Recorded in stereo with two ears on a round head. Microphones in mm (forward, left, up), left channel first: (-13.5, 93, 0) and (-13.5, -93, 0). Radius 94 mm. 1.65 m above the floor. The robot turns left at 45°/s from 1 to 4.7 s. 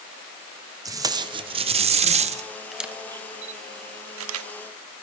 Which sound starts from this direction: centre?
A camera shutter, at 2.7 s.